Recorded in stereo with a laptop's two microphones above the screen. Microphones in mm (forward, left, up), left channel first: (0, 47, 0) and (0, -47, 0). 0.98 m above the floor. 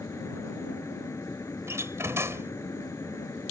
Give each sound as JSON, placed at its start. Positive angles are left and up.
{"t": 0.0, "sound": "a fan", "side_deg": 35}
{"t": 1.7, "sound": "a door slam", "side_deg": -30}